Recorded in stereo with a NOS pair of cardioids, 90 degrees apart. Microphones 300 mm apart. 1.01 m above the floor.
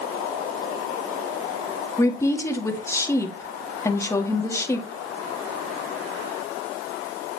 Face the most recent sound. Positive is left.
turn(degrees=10)